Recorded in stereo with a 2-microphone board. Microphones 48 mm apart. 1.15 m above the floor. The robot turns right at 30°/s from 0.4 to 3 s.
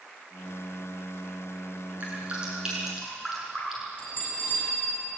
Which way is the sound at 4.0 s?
40° left (ahead or behind).